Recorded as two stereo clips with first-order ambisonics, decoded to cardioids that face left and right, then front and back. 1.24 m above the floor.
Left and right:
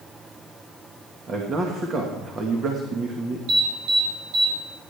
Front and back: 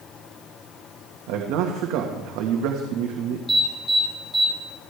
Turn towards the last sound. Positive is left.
turn(degrees=-85)